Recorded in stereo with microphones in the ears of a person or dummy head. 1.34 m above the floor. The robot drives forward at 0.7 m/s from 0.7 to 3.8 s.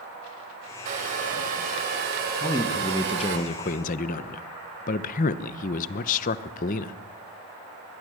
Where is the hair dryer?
40° right (ahead or behind), 4.5 m; by 3.4 s 60° right (ahead or behind), 3.5 m.